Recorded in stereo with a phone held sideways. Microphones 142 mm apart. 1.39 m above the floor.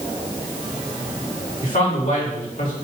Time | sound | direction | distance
1.6 | a man speaking | 80° left | 3.5 m